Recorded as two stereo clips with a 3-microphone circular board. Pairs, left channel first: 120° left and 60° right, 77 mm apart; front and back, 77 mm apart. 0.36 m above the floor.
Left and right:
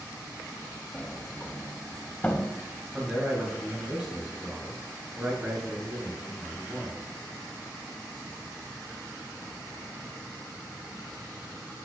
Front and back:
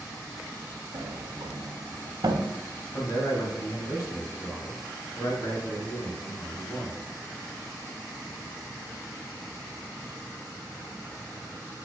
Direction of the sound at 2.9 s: 15° left.